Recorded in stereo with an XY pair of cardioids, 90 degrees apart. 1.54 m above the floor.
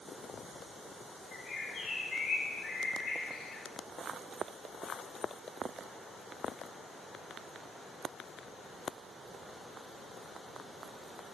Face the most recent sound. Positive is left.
turn(degrees=65)